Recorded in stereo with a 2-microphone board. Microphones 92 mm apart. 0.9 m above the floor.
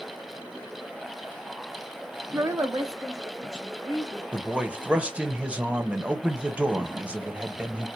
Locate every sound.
2.3 s a woman speaking: 25° right (ahead or behind), 0.5 m; by 4.2 s 35° right (ahead or behind), 3 m
4.3 s a man speaking: 15° right (ahead or behind), 0.7 m